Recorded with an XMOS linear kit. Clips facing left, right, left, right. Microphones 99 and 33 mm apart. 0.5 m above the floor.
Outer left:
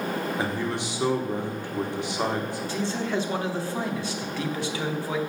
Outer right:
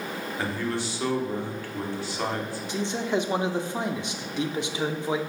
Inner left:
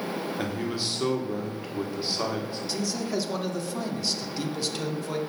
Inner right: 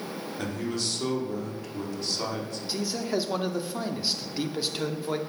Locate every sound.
0.4 s a man speaking: 20° left (ahead or behind), 1.2 m
2.7 s a man speaking: 20° right (ahead or behind), 0.7 m